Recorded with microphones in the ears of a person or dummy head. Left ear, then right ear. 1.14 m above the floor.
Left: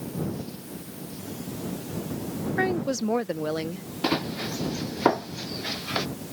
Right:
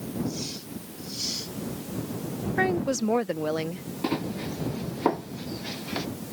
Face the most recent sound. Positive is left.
turn(degrees=25)  # may be behind; listen again after turning